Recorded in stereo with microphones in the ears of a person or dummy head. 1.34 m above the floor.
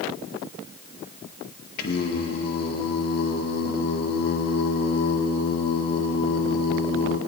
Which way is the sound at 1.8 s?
50° left (ahead or behind).